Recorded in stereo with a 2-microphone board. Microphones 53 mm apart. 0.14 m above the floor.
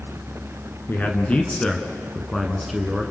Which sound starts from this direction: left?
A man speaking, at 0.9 s.